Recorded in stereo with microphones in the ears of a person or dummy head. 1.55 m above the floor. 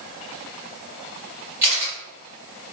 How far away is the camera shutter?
About 1.1 m.